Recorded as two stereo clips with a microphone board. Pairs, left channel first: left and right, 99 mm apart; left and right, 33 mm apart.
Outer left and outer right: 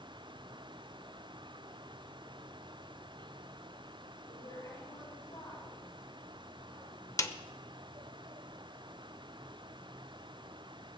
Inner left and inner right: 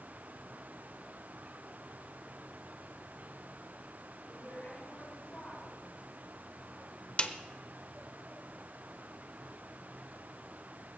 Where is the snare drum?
35° left (ahead or behind), 0.8 m.